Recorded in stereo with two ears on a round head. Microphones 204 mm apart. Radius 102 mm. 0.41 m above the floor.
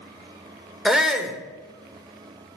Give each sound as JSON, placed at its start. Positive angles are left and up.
{"t": 0.8, "sound": "a shout", "side_deg": 0, "distance_m": 0.9}